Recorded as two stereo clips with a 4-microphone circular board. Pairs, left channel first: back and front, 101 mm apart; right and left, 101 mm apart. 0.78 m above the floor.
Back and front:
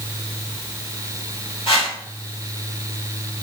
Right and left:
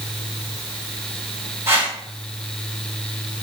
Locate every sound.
1.7 s a whoosh: 155° left, 3.5 m